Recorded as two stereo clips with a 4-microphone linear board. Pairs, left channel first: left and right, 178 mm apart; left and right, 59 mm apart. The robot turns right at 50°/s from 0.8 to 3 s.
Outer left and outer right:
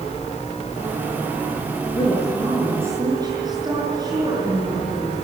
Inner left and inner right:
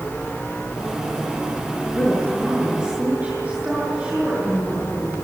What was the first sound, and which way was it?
A woman speaking, 150° left.